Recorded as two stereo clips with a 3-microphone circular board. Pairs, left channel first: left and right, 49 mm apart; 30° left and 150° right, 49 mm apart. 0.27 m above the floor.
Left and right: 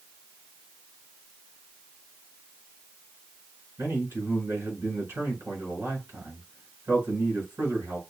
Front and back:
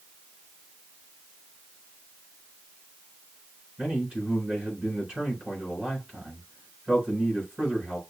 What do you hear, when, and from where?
3.8 s a man speaking: 95° right, 4 m